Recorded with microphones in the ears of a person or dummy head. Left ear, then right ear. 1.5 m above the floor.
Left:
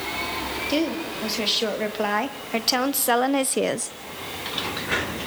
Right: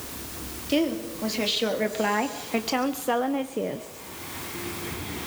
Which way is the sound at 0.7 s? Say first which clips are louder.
Right 2 dB; 10° left (ahead or behind).